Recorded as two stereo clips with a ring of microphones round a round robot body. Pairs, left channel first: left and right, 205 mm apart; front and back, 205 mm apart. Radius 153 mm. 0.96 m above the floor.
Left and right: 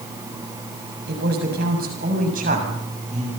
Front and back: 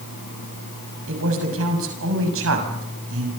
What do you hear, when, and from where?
1.1 s a man speaking: 145° right, 7 m; by 3.3 s 155° right, 7 m